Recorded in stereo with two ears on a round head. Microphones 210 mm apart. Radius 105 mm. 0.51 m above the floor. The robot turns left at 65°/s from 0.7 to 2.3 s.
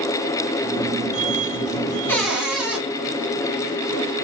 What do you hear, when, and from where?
2.1 s a cupboard door: 10° left (ahead or behind), 1.2 m; by 2.8 s 5° right (ahead or behind), 1.2 m